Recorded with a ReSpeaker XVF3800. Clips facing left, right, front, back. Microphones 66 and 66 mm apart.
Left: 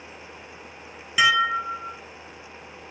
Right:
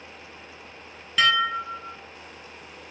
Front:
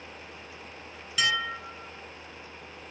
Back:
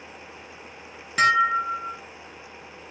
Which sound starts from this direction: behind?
Dishes clattering, at 1.2 s.